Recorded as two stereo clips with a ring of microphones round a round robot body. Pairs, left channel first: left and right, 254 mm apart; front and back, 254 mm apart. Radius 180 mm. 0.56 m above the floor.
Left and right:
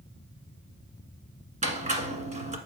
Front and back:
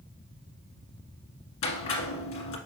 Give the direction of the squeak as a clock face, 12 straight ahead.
1 o'clock.